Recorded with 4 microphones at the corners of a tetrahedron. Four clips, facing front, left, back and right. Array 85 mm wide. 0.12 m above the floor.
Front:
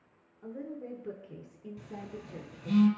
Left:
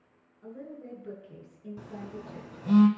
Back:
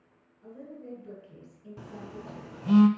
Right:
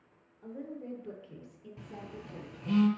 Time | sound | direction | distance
0.4 | a woman speaking | 10° left | 1.7 m
1.8 | a phone buzzing | 150° left | 0.8 m